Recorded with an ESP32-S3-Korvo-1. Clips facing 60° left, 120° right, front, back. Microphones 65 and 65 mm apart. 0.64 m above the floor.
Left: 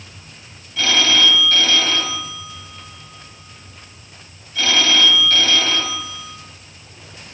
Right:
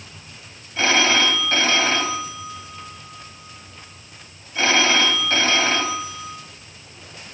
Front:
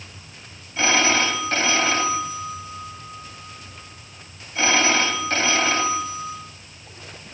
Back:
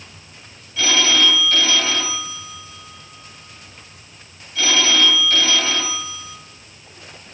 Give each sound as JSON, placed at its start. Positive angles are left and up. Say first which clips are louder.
{"t": 0.8, "sound": "a phone ringing", "louder": "even, even", "azimuth_deg": -60, "distance_m": 2.5}